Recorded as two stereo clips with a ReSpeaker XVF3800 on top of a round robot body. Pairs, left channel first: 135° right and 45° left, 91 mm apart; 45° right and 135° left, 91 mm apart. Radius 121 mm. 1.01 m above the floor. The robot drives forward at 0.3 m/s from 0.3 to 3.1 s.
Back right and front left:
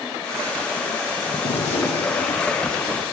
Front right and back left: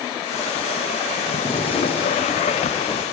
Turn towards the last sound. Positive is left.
turn(degrees=-150)